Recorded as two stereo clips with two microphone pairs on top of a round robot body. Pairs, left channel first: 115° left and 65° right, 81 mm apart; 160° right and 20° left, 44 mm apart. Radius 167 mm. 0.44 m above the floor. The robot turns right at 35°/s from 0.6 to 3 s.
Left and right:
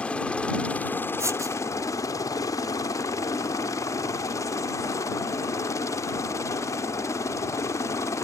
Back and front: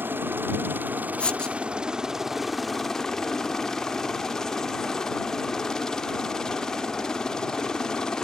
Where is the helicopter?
45° left; by 8.2 s 140° left.